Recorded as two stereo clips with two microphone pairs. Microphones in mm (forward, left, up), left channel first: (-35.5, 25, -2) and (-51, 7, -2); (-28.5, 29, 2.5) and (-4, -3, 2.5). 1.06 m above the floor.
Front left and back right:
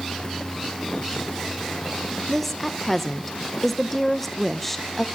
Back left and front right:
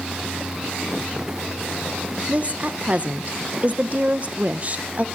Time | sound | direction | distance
2.3 | a woman speaking | 25° right | 0.7 m